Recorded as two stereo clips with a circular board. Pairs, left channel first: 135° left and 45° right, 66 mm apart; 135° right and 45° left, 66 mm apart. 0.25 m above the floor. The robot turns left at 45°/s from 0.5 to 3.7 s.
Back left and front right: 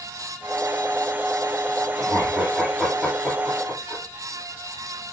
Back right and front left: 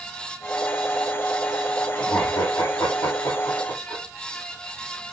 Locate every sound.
1.9 s laughter: 105° right, 6.5 m; by 4.0 s straight behind, 6.5 m